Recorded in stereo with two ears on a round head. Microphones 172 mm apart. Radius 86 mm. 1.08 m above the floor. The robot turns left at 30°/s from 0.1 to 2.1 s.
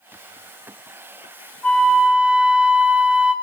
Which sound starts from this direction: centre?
A flute, at 1.6 s.